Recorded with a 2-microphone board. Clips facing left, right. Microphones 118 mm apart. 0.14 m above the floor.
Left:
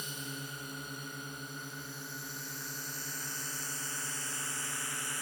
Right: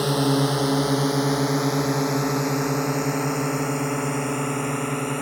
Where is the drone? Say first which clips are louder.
Right 24 dB; 70° right (ahead or behind); by 5.2 s 60° right (ahead or behind).